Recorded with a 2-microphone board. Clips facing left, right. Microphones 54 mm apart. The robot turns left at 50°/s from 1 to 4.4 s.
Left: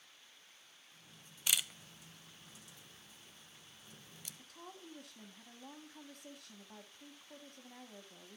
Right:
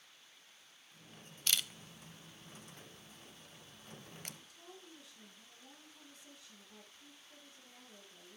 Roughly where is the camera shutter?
Centre.